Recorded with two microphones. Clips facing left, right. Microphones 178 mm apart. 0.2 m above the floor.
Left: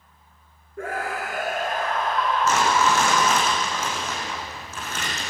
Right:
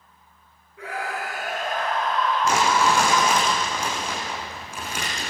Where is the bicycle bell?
No bicycle bell in this recording.